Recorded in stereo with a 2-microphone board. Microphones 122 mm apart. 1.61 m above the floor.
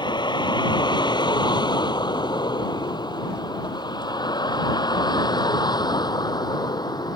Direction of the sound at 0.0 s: 40° left (ahead or behind).